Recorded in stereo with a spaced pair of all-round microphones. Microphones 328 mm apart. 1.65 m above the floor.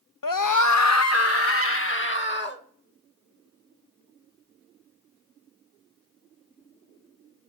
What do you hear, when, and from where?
0.2 s a scream: 80° left, 0.7 m; by 2.6 s 35° left (ahead or behind), 2.5 m